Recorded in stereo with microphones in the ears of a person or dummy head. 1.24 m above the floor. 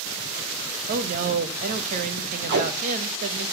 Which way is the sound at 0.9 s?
45° right (ahead or behind).